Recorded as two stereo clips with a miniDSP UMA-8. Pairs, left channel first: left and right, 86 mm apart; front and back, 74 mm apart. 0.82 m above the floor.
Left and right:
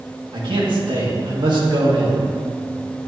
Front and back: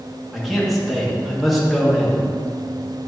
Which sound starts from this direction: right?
A man speaking, at 0.3 s.